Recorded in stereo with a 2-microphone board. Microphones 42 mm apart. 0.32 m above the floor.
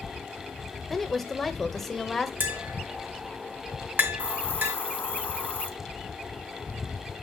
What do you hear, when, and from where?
0.9 s a woman speaking: 10° left (ahead or behind), 0.9 m
2.4 s tapping: 50° right (ahead or behind), 1.9 m
4.2 s a hiss: 55° left (ahead or behind), 0.9 m